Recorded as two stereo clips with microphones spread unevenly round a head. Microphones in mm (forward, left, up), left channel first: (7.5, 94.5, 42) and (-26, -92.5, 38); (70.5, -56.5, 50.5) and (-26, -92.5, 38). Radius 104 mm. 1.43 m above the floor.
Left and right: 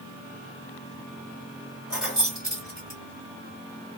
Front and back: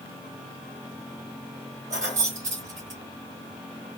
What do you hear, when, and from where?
1.9 s keys jangling: 175° left, 1.8 m